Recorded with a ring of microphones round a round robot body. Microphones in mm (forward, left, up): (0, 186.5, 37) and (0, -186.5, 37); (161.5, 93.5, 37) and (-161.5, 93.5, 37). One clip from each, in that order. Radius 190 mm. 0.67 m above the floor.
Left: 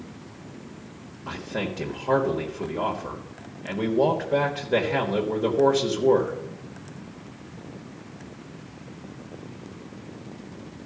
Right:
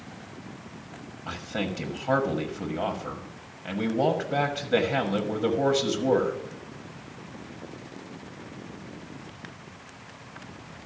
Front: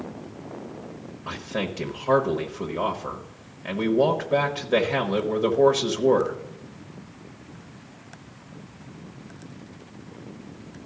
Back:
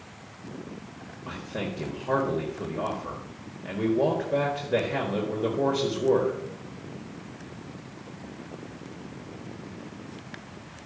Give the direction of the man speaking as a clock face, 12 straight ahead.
12 o'clock.